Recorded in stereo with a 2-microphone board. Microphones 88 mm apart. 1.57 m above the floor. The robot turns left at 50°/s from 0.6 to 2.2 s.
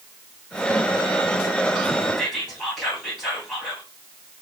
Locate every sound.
2.2 s whispering: 5° right (ahead or behind), 1.8 m